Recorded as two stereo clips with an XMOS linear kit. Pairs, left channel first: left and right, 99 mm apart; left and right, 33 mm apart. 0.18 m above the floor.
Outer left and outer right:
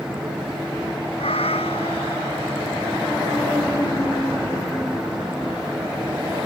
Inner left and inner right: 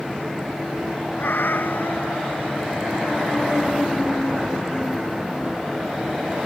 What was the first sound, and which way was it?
A cat meowing, 80° left.